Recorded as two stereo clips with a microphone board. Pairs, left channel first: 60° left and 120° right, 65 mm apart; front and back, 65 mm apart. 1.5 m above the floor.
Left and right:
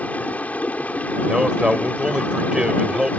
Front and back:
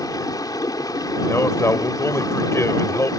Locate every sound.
0.0 s running water: 5° right
1.3 s a man speaking: 40° right